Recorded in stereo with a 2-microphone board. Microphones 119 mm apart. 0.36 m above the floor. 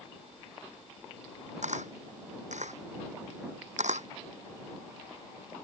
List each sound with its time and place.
1.6 s a camera shutter: 70° right (ahead or behind)